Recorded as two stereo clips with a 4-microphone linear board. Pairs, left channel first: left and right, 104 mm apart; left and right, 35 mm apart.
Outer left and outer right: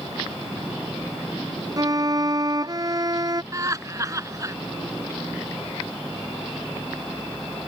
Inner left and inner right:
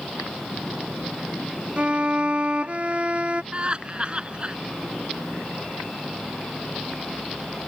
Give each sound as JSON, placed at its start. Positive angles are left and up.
{"t": 1.8, "sound": "a violin", "side_deg": -35}
{"t": 3.5, "sound": "laughter", "side_deg": -35}